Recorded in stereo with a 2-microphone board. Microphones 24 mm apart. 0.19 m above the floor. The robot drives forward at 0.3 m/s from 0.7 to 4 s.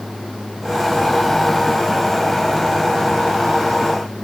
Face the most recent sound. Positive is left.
No sound to turn to.